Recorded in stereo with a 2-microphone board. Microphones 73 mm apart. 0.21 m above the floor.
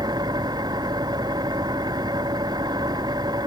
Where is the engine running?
65° right (ahead or behind).